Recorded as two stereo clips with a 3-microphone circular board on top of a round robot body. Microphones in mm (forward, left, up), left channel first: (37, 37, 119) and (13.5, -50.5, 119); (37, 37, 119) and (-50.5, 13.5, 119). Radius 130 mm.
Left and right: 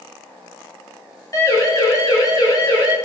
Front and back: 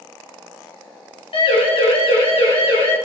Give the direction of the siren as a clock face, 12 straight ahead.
11 o'clock.